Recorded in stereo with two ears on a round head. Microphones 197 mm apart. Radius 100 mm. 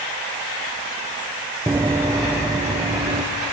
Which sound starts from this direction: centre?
Running footsteps, at 1.7 s.